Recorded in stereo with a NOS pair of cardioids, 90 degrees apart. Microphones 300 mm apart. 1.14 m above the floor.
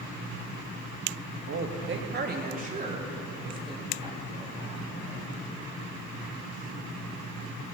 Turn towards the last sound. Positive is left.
turn(degrees=-10)